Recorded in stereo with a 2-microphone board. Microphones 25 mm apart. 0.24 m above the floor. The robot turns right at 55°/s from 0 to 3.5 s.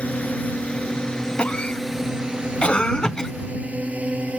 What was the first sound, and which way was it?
A drone, 60° left (ahead or behind).